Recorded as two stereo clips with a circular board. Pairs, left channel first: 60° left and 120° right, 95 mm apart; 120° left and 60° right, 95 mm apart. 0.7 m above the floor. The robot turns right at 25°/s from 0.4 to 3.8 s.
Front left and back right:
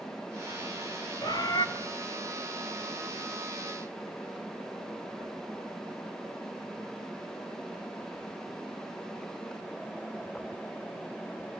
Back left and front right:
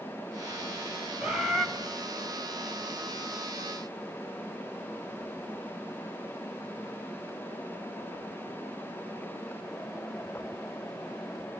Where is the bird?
20° left, 3.5 m; by 1.7 s 30° left, 3.5 m.